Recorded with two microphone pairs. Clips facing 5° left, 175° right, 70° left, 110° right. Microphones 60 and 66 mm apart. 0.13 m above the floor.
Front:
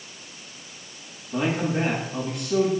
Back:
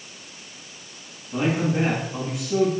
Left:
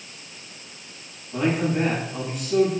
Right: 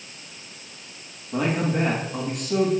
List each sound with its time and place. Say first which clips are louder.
1.3 s a man speaking: back 2 dB, left 1 dB; 95° right, 8 m